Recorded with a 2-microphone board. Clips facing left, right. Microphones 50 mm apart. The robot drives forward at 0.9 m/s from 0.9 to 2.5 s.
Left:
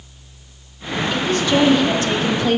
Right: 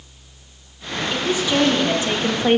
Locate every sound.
1.1 s a woman speaking: 10° right (ahead or behind), 1.8 m; by 2.6 s 30° right (ahead or behind), 0.7 m